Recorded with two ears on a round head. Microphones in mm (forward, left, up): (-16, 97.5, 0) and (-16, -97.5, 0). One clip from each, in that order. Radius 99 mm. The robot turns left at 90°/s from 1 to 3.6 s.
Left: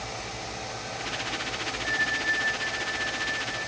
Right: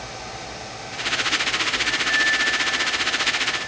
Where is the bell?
70° right, 3 m; by 3.7 s 130° left, 3 m.